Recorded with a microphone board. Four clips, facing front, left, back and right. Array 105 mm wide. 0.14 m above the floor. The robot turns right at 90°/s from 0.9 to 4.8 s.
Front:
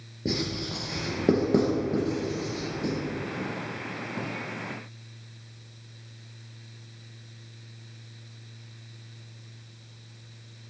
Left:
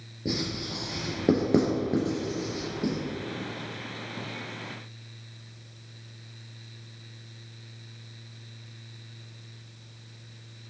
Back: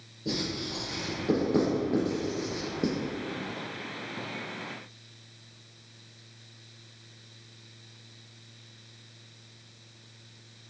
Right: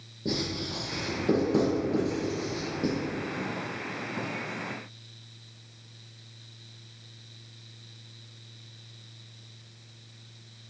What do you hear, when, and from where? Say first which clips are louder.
0.2 s writing: even, front 3 dB; 10° left, 2 m; by 2.9 s 170° right, 2 m